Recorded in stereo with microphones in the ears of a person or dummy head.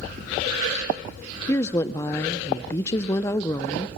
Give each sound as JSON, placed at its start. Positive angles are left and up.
{"t": 1.5, "sound": "a woman speaking", "side_deg": 20, "distance_m": 0.5}